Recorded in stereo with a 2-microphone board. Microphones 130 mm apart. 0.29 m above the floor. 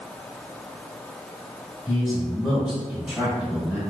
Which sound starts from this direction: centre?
A man speaking, at 1.9 s.